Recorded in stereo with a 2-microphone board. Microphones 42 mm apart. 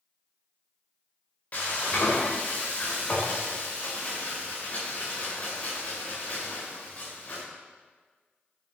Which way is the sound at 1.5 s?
40° left (ahead or behind).